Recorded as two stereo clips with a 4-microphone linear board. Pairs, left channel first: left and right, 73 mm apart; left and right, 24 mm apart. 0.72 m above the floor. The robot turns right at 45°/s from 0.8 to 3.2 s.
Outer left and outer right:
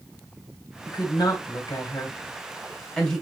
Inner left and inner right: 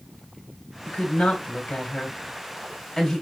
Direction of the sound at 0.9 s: 65° left (ahead or behind).